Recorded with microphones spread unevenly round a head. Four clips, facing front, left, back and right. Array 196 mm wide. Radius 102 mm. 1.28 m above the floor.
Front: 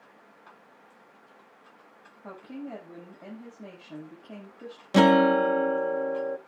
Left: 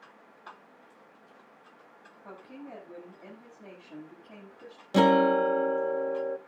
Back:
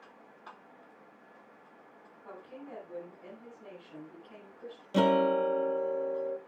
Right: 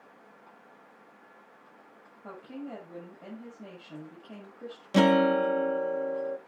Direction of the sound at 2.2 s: 30° right.